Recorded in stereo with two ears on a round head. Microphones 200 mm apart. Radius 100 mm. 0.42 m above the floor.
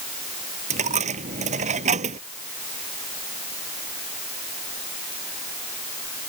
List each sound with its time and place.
0.7 s a dropped coin: 35° right (ahead or behind)